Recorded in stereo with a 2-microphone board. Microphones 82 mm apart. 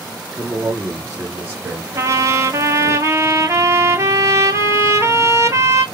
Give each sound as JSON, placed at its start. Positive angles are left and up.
{"t": 0.3, "sound": "a man speaking", "side_deg": -25, "distance_m": 1.5}
{"t": 1.9, "sound": "a trumpet", "side_deg": -35, "distance_m": 0.7}